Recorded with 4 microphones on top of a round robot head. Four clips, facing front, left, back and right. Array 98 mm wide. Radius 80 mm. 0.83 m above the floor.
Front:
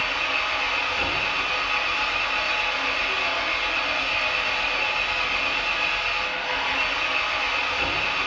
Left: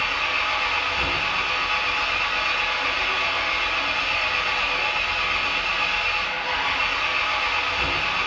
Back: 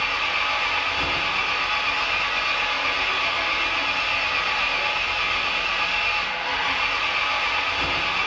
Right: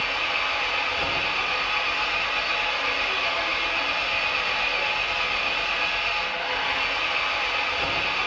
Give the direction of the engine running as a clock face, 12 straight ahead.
8 o'clock.